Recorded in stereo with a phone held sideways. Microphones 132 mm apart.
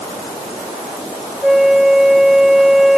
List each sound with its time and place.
1.4 s a flute: centre (ahead or behind)